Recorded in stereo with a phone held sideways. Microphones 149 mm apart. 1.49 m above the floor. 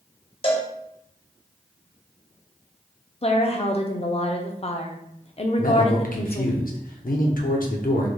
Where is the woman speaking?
45° left (ahead or behind), 0.6 m.